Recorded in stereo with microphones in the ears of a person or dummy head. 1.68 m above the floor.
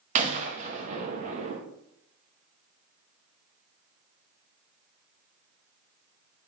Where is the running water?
No running water in this recording.